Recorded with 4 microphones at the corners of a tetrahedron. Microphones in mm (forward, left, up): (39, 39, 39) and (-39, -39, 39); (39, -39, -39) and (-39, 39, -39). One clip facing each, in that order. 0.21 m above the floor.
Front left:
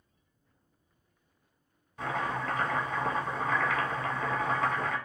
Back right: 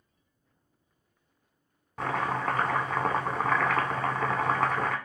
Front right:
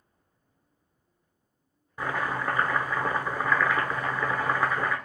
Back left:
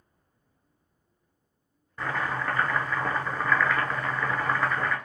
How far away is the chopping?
About 0.5 m.